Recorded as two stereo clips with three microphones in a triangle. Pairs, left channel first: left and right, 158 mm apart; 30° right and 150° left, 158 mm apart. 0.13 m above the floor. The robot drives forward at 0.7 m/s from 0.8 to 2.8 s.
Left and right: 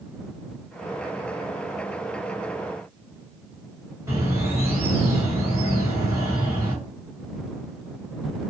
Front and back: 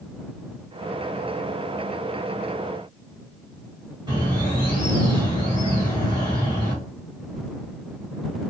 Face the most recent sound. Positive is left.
turn(degrees=-160)